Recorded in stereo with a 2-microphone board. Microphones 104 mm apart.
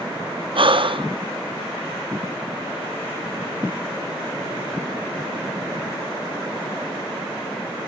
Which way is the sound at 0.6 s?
60° right (ahead or behind).